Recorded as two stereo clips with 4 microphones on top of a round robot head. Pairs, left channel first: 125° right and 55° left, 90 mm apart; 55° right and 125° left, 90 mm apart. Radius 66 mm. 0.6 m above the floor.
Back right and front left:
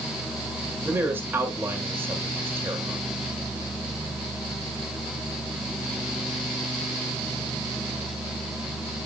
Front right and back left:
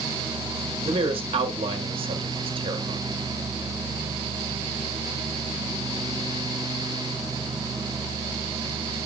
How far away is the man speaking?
About 1.8 m.